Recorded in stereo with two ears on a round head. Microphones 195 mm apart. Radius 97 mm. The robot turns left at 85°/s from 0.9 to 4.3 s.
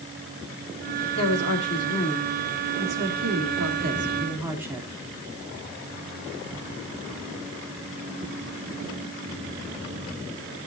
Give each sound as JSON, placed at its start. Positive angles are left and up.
{"t": 1.1, "sound": "a woman speaking", "azimuth_deg": 100, "distance_m": 3.0}